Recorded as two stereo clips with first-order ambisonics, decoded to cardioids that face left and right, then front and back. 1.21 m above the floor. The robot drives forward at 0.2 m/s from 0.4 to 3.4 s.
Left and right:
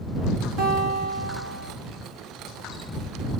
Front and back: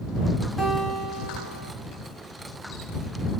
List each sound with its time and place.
0.6 s a guitar: 85° right, 7 m; by 1.7 s 90° right, 7 m